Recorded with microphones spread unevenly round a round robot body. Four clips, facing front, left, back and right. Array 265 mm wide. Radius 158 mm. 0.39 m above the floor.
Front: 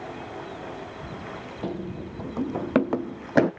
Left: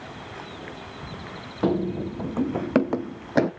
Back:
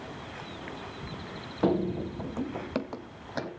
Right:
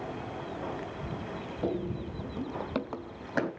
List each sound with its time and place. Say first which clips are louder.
1.6 s running footsteps: left 9 dB, back 7 dB; 125° left, 0.9 m; by 3.5 s 30° left, 1.2 m